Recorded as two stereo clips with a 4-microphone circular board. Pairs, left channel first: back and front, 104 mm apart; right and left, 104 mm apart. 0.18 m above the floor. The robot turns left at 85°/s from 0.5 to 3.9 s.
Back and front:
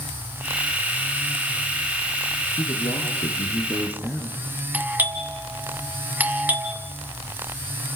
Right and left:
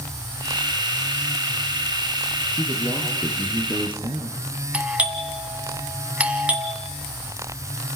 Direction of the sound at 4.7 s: 35° left.